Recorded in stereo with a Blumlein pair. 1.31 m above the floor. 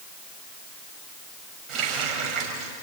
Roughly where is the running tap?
Ahead right.